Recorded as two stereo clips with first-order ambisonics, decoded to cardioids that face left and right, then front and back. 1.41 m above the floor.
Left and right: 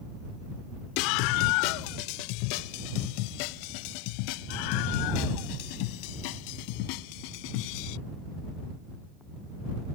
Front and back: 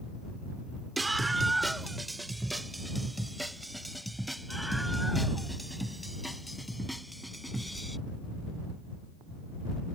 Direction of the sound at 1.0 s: 100° left.